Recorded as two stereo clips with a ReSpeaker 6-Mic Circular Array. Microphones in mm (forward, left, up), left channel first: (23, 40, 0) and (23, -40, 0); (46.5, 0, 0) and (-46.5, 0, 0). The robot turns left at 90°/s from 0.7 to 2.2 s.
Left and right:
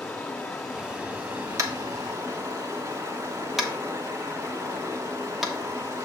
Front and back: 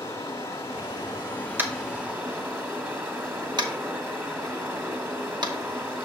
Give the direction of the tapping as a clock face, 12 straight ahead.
4 o'clock.